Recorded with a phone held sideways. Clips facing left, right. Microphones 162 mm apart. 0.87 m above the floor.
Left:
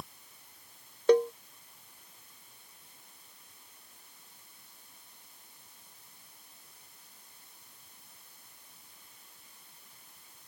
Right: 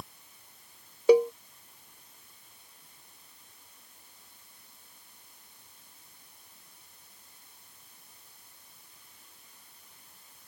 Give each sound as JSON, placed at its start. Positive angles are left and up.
{"t": 1.1, "sound": "a cowbell", "side_deg": -10}